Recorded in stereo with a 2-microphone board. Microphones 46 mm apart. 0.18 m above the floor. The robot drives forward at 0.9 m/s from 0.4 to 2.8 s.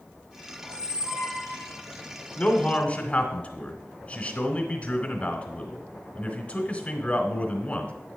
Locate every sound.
0.6 s a squeak: 30° left (ahead or behind), 2.0 m; by 1.8 s 20° left (ahead or behind), 3 m
2.4 s a man speaking: 25° left (ahead or behind), 1.1 m